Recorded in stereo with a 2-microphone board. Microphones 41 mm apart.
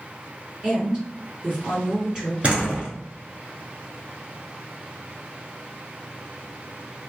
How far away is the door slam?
About 1.2 m.